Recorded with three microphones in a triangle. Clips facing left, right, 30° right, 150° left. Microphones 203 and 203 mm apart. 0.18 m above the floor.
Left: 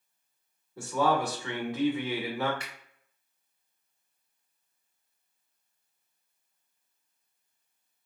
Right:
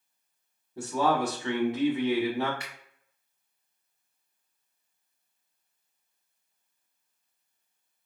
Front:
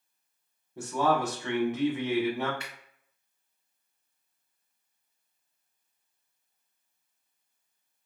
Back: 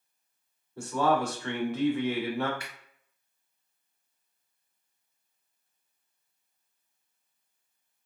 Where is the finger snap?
25° left, 1.4 m.